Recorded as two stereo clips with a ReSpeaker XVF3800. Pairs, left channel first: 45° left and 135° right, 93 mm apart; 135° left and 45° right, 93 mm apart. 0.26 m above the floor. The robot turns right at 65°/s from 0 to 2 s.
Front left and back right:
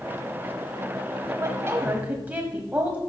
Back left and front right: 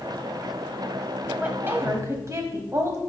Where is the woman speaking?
115° right, 1.4 m; by 3.0 s 75° right, 1.4 m.